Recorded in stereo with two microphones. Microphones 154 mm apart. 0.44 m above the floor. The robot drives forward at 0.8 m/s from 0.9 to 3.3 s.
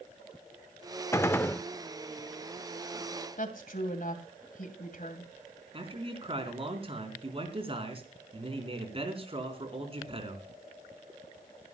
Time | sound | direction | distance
1.1 | a gunshot | 15° left (ahead or behind) | 0.6 m
3.4 | a woman speaking | 65° left (ahead or behind) | 2.5 m
5.7 | a man speaking | 35° right (ahead or behind) | 4 m